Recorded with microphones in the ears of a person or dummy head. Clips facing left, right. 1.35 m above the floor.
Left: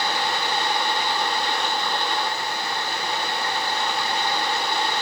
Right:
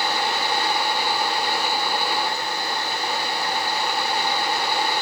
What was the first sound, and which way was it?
Only background noise.